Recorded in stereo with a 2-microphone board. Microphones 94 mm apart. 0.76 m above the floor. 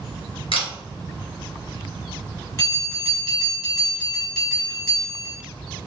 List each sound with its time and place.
0.5 s a camera shutter: 75° left (ahead or behind), 1.8 m
2.6 s a bell: 30° left (ahead or behind), 1.9 m